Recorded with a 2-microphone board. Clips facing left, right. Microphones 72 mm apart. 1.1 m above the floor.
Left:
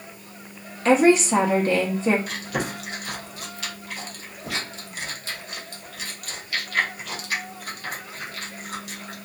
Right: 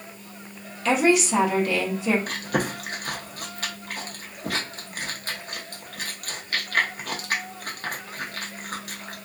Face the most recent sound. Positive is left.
turn(degrees=-45)  # may be behind; listen again after turning